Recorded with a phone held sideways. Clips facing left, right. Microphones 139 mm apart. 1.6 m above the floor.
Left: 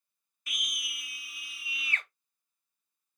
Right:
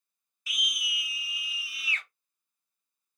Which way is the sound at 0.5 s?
55° left (ahead or behind).